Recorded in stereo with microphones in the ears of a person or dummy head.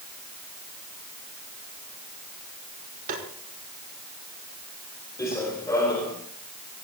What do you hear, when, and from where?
3.1 s tapping: 50° right (ahead or behind), 4 m
5.2 s running footsteps: 15° left (ahead or behind), 4 m